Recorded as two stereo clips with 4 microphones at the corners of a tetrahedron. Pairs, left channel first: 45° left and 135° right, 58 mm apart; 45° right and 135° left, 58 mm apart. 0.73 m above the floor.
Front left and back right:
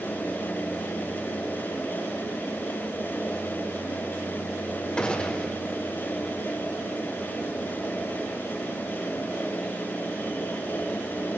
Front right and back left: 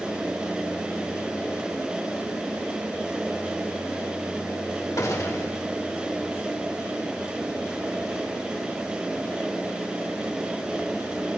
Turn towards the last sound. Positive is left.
turn(degrees=-25)